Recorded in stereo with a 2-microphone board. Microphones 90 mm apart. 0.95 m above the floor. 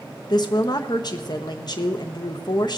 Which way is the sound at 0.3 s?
50° left (ahead or behind).